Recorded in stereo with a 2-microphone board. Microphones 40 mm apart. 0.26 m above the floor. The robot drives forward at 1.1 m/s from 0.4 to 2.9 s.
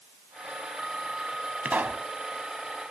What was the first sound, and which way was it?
A pop, 40° right (ahead or behind).